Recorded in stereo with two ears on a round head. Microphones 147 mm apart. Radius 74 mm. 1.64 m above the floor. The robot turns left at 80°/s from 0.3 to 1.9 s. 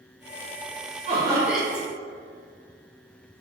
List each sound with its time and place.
1.1 s laughter: 140° right, 1.3 m; by 1.9 s 155° left, 1.3 m